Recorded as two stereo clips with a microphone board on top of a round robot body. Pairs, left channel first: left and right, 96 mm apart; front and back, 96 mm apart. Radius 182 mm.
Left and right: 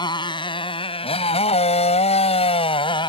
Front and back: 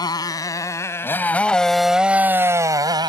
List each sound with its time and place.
0.0 s a motorcycle: 50° left; by 3.1 s 135° left